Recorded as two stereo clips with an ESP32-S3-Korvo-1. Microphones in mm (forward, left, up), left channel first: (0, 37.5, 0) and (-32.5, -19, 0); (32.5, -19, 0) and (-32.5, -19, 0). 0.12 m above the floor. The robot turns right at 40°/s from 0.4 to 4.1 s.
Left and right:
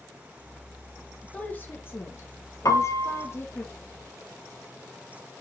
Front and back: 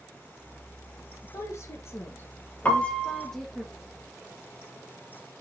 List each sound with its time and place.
1.2 s a woman speaking: 5° right, 2 m; by 3.6 s 95° left, 2 m
2.6 s a piano: 65° left, 1.4 m; by 3.3 s 90° left, 1.4 m